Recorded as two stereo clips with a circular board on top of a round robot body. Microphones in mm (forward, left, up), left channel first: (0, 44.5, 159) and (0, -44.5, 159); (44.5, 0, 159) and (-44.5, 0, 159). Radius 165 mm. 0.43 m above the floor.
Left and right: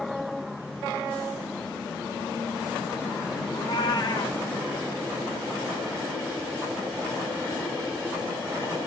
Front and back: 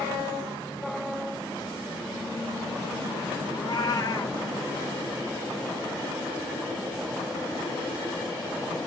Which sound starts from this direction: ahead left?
A cat meowing, at 3.5 s.